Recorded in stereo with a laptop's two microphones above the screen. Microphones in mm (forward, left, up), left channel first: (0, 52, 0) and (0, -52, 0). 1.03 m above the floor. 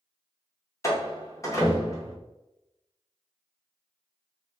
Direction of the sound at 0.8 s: 30° left (ahead or behind).